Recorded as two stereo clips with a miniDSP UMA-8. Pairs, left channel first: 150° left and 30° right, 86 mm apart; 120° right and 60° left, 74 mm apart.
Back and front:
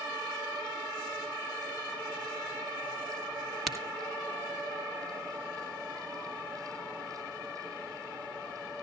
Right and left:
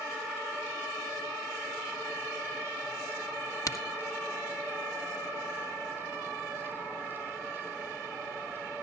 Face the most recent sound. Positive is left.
turn(degrees=-120)